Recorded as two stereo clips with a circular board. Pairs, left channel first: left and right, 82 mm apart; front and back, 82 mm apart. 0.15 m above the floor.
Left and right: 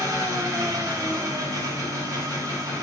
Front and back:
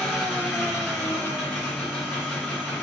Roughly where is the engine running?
Right.